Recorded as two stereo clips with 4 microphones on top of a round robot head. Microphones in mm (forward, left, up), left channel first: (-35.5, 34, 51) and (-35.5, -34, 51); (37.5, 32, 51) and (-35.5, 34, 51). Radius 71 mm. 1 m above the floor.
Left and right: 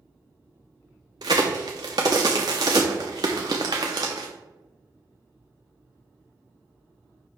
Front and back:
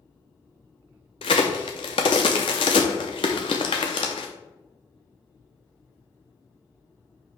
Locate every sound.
1.2 s a crack: 40° right, 0.5 m